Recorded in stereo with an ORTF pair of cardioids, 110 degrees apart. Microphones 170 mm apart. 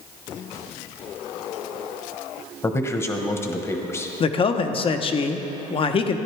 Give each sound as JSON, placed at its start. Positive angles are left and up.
{"t": 2.6, "sound": "a man speaking", "azimuth_deg": 15, "distance_m": 1.1}
{"t": 4.2, "sound": "a man speaking", "azimuth_deg": 35, "distance_m": 0.9}